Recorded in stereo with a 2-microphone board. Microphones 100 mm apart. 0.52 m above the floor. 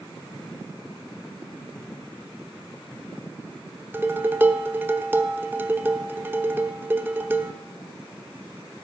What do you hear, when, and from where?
3.9 s dishes clattering: 20° right (ahead or behind), 0.9 m